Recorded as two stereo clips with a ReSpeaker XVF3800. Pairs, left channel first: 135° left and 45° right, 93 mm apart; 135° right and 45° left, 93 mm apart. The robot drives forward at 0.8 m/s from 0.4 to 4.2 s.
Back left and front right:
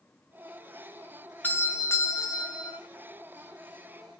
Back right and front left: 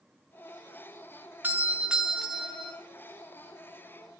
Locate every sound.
1.4 s a doorbell: 90° left, 1.6 m; by 2.8 s 145° left, 1.9 m